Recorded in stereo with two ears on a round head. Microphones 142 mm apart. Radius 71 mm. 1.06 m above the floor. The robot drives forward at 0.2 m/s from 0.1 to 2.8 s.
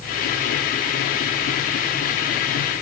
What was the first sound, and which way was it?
Only background noise.